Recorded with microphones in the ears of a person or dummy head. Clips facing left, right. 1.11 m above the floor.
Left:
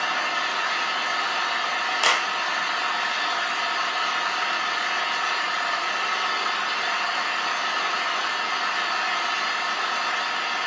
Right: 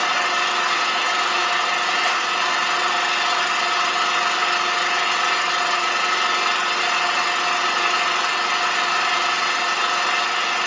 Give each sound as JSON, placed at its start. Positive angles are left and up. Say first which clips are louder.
{"t": 0.0, "sound": "an engine running", "louder": "right 5 dB", "side_deg": -55, "distance_m": 0.9}
{"t": 2.0, "sound": "a clap", "louder": "right 1 dB", "side_deg": 70, "distance_m": 0.8}